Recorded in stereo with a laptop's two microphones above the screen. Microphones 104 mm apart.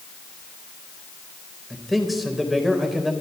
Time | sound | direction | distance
1.7 | a man speaking | centre (ahead or behind) | 4 m